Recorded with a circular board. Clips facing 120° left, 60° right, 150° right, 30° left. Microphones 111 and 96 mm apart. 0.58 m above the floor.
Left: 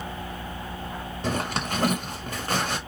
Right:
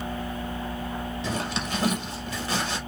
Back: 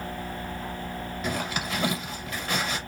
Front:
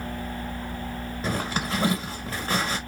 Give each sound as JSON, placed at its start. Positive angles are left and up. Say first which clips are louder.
{"t": 1.2, "sound": "a zipper", "louder": "left 5 dB, front 3 dB", "azimuth_deg": 85, "distance_m": 1.2}